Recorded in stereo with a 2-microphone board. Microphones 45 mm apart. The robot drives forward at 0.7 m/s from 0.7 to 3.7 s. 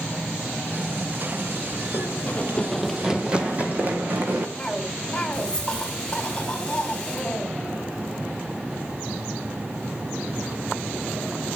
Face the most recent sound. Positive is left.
turn(degrees=20)  # may be behind; listen again after turning